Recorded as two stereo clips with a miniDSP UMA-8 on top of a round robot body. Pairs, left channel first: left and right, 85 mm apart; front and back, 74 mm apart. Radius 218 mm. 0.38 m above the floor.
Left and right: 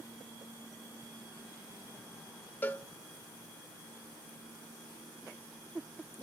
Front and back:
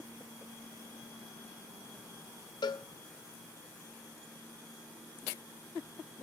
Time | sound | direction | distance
2.6 | a cowbell | 20° left | 0.7 m